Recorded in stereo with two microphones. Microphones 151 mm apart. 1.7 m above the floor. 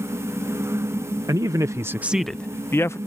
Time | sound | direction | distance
1.3 | a man speaking | 25° right (ahead or behind) | ?